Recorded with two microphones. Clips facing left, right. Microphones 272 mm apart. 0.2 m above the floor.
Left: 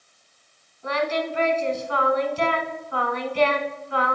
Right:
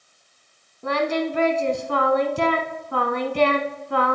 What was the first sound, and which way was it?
Singing, 55° right (ahead or behind).